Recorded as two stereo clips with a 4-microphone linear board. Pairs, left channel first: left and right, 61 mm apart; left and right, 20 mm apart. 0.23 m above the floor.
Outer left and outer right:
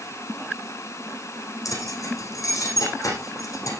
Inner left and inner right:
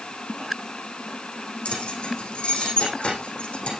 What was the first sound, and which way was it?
Keys jangling, 65° left (ahead or behind).